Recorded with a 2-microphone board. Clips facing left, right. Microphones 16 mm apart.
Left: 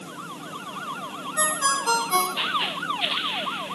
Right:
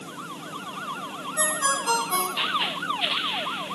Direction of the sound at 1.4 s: 20° left (ahead or behind).